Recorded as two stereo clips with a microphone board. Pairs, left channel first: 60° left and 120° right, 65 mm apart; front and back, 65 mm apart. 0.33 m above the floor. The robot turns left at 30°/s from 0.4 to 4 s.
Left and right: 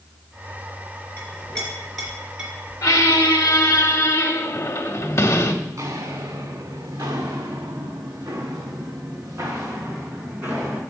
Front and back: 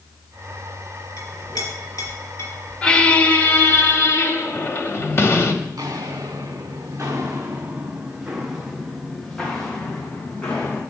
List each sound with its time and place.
1.2 s a clink: straight ahead, 3 m; by 2.5 s 40° right, 3 m
2.8 s a squeak: 70° left, 0.8 m; by 5.5 s 35° left, 0.8 m
5.6 s footsteps: 150° right, 1.6 m; by 10.8 s 65° right, 2 m